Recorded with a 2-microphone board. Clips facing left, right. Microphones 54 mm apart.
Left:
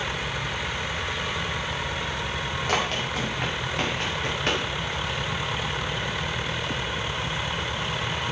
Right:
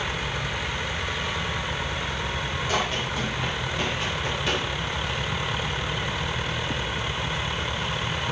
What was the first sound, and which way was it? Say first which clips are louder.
Running footsteps: left 1 dB; 70° left (ahead or behind).